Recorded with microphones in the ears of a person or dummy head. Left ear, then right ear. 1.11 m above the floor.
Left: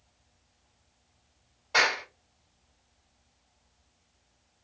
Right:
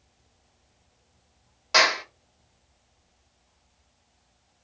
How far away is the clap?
About 1.6 m.